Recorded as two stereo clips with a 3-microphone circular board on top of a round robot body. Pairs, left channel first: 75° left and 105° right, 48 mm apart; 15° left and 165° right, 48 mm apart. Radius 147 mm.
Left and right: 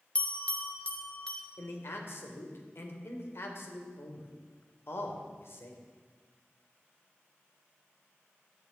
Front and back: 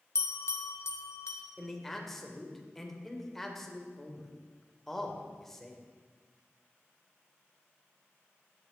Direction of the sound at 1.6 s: 100° left.